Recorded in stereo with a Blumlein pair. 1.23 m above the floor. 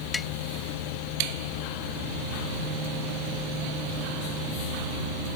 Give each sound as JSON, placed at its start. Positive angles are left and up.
{"t": 0.1, "sound": "tapping", "azimuth_deg": 15}